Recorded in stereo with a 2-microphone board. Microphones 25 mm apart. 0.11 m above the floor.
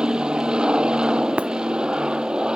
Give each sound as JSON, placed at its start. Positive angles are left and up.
{"t": 0.0, "sound": "an aircraft", "side_deg": -40}
{"t": 1.4, "sound": "breaking glass", "side_deg": -75}